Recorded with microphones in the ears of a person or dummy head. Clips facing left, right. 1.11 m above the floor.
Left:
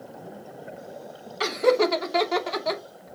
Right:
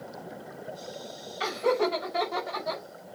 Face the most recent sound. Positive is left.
turn(degrees=85)